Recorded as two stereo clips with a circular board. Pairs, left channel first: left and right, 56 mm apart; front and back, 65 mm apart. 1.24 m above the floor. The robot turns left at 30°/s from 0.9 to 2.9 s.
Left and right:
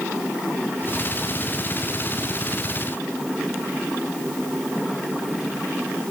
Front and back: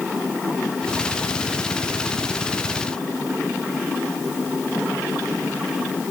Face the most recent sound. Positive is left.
No sound to turn to.